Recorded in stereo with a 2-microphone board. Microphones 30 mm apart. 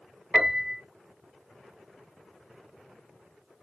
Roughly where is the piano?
Right.